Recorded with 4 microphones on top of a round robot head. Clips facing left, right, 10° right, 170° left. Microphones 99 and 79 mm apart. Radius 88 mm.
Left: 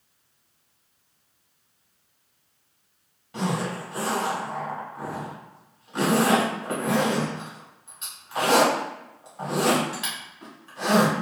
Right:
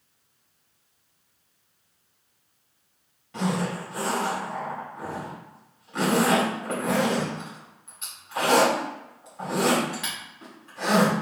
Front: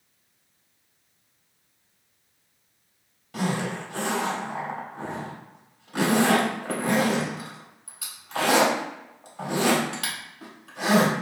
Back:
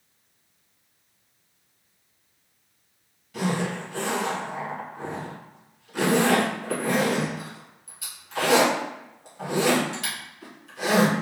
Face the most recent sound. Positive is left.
turn(degrees=10)